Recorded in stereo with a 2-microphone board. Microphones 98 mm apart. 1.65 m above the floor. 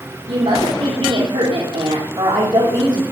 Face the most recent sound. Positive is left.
turn(degrees=-50)  # may be behind; listen again after turning